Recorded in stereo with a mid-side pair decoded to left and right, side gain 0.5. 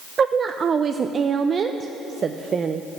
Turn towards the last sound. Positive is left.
turn(degrees=-45)